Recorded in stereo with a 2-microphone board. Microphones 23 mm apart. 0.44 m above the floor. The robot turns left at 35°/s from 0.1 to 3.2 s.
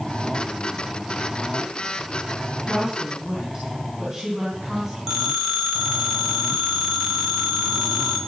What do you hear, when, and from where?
2.6 s a woman speaking: 50° right (ahead or behind), 4.5 m; by 5.0 s 30° right (ahead or behind), 4.5 m
5.1 s a phone ringing: 20° right (ahead or behind), 3 m